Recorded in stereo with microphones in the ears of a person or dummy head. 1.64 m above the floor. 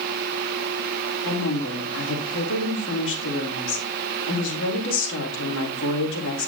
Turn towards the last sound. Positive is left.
turn(degrees=75)  # may be behind; listen again after turning